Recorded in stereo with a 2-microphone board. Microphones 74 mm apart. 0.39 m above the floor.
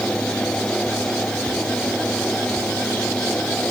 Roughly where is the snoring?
I don't hear snoring.